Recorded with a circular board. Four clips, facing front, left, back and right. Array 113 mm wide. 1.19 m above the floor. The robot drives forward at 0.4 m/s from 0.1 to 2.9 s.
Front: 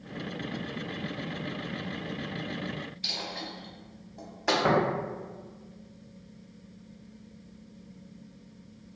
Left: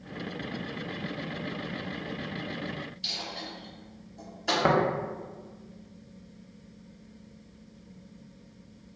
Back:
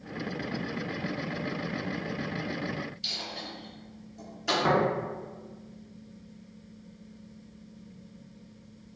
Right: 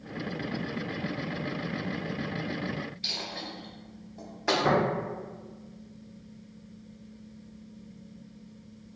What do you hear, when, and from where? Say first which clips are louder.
3.0 s a dropped coin: right 1 dB, front 2 dB; 45° right, 0.9 m
4.6 s tapping: left 1 dB, even; 90° left, 0.7 m